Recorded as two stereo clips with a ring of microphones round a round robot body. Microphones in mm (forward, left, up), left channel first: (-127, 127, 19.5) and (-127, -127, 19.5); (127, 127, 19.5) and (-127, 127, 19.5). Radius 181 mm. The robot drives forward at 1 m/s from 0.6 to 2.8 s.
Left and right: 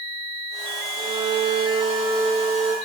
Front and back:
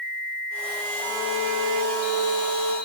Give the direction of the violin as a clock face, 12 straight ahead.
5 o'clock.